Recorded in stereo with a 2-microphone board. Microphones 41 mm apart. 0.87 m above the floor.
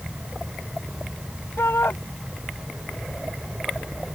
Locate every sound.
1.6 s a shout: 75° left (ahead or behind)